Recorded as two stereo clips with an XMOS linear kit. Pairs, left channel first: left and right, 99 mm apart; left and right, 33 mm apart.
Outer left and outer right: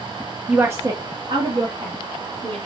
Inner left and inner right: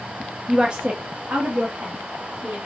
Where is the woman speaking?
5° right (ahead or behind), 0.7 m; by 2.7 s 70° right (ahead or behind), 2.5 m.